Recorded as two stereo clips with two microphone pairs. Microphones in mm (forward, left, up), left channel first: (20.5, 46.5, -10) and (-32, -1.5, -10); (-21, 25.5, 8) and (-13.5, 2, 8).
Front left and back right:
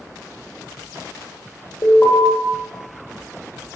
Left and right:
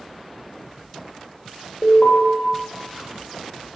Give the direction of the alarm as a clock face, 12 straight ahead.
9 o'clock.